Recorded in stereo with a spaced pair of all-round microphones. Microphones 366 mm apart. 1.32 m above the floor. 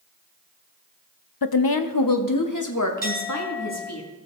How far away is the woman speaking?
About 0.6 m.